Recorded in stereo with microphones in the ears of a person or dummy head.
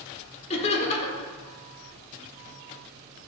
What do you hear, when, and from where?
0.5 s laughter: 35° left (ahead or behind), 1.4 m